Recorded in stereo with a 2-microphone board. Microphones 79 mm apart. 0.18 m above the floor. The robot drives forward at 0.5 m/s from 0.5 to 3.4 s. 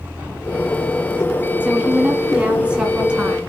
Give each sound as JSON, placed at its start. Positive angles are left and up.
{"t": 1.6, "sound": "a woman speaking", "side_deg": -15, "distance_m": 1.6}